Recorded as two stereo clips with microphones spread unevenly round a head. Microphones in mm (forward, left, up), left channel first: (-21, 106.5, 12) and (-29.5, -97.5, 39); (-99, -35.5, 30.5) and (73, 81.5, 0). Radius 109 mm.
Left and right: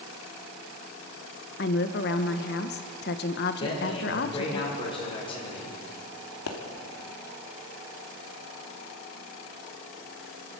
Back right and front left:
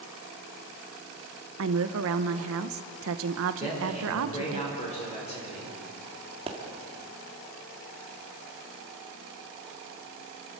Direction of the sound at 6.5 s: 100° left.